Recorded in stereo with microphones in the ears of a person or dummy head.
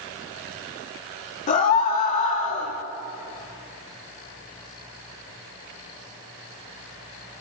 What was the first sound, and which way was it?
A scream, 40° left (ahead or behind).